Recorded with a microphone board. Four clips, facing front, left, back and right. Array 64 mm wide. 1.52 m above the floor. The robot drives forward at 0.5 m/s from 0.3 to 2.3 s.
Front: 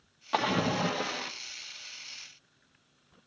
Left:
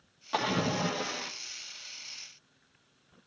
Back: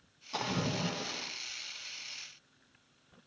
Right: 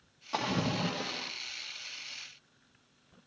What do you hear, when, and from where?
0.3 s a splash: 10° left, 1.9 m; by 1.3 s 15° left, 1.5 m